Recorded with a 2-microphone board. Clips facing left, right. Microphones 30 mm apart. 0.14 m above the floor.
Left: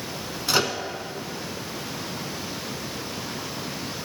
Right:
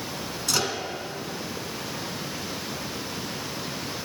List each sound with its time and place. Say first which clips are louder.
0.5 s a microwave: left 4 dB; 25° left (ahead or behind), 0.9 m